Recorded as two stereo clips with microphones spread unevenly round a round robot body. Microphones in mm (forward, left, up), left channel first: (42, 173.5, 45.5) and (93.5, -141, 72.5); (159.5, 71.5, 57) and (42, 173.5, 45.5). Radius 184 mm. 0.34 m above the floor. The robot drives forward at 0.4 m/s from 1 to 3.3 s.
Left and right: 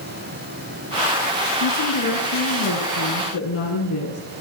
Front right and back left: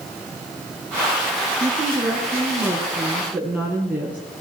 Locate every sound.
1.6 s a woman speaking: 50° left, 5.5 m; by 4.2 s 60° left, 5 m